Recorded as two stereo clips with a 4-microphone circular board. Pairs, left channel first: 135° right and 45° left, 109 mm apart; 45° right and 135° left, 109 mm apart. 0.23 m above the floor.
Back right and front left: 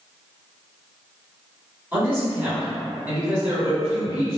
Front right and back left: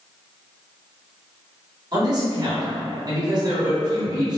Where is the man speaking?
115° left, 1.9 m.